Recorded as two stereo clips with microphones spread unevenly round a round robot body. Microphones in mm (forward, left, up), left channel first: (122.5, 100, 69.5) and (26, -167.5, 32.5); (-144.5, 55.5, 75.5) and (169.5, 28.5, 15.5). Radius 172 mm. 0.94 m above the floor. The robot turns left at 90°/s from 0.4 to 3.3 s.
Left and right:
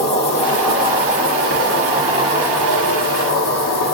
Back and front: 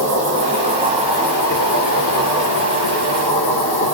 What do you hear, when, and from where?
0.0 s an insect: straight ahead, 2 m; by 3.9 s 100° left, 2 m